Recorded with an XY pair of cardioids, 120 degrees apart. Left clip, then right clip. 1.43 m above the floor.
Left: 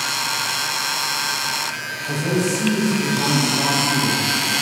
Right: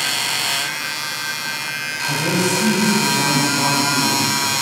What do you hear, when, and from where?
2.1 s a man speaking: 25° right, 1.6 m